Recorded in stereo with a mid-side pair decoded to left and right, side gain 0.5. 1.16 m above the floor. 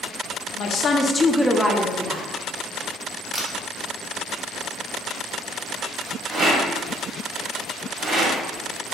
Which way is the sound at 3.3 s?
15° right.